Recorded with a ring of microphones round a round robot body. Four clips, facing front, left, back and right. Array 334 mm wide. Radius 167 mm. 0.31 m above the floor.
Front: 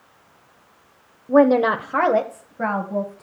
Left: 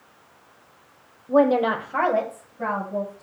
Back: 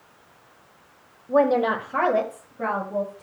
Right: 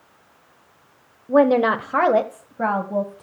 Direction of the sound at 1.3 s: 35° right.